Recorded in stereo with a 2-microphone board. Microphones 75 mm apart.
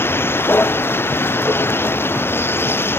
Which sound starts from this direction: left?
A vehicle, at 0.0 s.